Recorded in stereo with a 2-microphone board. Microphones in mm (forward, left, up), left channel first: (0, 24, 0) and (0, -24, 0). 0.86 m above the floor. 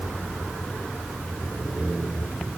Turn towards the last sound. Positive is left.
No sound to turn to.